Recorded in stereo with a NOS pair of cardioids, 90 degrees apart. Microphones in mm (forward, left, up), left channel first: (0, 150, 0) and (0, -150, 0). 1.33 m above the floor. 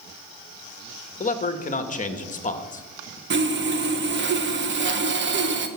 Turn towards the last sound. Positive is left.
turn(degrees=-40)